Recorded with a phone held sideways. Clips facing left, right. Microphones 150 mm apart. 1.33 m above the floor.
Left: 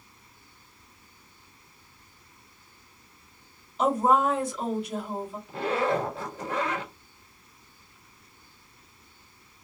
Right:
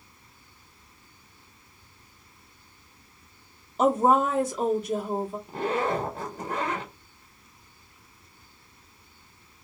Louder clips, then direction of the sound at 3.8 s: Right 2 dB; 40° right (ahead or behind).